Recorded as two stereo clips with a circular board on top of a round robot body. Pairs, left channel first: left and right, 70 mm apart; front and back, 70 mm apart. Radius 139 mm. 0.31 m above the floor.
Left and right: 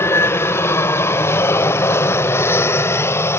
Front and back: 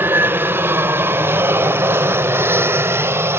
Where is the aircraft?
130° left; by 3.4 s 135° left.